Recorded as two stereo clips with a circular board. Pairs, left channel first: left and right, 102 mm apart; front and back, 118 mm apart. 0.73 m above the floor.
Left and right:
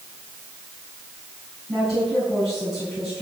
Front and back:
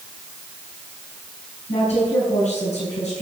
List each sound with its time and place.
1.7 s a woman speaking: straight ahead, 5.5 m